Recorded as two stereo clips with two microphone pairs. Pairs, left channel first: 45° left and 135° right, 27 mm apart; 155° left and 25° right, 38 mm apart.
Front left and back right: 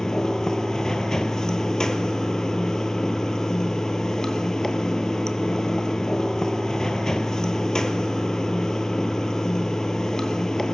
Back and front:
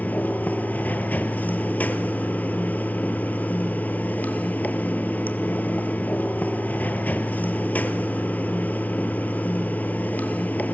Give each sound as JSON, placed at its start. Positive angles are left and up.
{"t": 0.0, "sound": "running water", "azimuth_deg": 115, "distance_m": 1.0}